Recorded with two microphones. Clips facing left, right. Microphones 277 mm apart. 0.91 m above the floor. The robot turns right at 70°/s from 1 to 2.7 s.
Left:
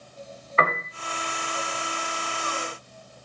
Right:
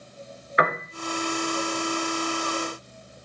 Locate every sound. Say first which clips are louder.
0.6 s a piano: right 1 dB; 15° right (ahead or behind), 2 m